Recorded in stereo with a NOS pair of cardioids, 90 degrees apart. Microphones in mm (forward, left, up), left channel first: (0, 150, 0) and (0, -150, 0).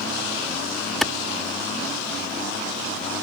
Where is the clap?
Straight ahead.